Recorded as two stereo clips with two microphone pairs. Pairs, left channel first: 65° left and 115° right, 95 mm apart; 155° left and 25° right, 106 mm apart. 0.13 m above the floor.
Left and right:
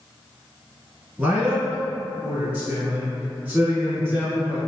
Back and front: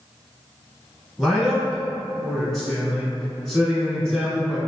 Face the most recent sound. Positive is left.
turn(degrees=-125)